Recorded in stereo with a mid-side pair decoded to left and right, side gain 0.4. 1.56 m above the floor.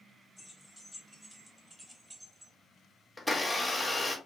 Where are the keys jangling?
5° right, 2 m; by 2.5 s 45° right, 0.8 m.